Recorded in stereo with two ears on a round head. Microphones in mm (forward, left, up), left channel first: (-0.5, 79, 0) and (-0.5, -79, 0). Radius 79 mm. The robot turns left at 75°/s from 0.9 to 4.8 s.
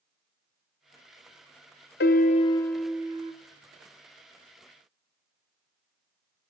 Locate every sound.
2.0 s a piano: 60° left, 0.6 m; by 3.3 s 40° right, 0.6 m